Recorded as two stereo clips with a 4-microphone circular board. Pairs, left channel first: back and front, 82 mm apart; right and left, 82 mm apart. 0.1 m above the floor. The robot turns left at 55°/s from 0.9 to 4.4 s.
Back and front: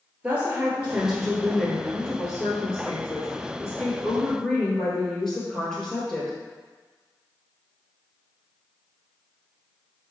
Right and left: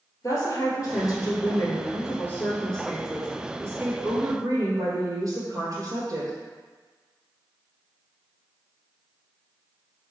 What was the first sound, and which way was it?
A woman speaking, 70° right.